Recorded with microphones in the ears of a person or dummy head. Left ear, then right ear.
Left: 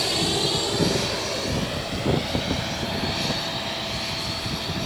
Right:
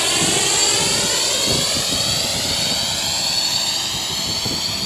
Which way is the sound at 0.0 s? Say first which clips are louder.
Right 5 dB; 50° right (ahead or behind).